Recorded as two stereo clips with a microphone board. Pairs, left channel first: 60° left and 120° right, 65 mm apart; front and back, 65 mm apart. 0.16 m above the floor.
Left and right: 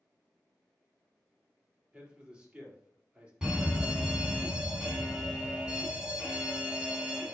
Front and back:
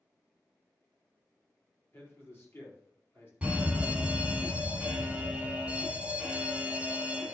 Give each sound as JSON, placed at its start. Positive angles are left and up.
{"t": 1.9, "sound": "a man speaking", "azimuth_deg": -45, "distance_m": 3.5}
{"t": 3.4, "sound": "a fire alarm", "azimuth_deg": -160, "distance_m": 2.0}